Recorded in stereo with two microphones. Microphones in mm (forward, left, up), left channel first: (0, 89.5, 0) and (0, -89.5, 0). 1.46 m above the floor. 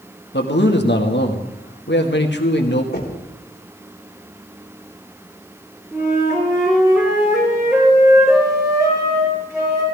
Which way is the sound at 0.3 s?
80° left.